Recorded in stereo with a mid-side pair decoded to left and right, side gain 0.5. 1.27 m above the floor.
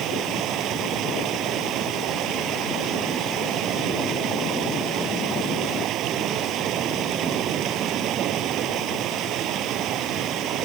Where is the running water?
70° right.